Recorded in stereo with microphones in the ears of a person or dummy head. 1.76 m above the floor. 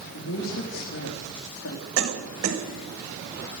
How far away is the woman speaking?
About 3.5 m.